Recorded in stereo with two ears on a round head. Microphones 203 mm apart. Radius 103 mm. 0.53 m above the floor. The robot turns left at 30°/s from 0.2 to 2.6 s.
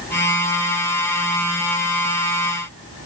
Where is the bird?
I don't hear a bird.